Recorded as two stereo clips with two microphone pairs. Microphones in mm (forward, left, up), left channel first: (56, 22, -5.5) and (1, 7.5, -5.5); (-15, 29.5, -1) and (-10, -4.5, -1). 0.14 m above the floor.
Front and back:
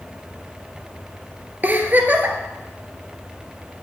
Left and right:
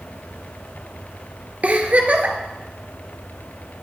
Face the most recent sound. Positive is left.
turn(degrees=-115)